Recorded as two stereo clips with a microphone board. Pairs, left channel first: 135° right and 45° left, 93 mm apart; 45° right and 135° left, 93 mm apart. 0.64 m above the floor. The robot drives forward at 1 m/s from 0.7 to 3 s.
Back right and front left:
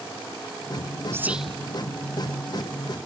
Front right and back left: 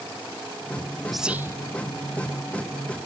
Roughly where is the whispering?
Ahead left.